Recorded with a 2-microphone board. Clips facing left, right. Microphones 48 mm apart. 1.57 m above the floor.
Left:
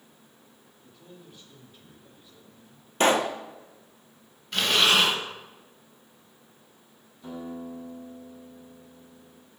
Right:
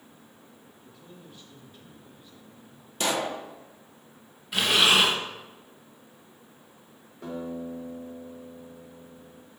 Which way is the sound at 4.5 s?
5° right (ahead or behind).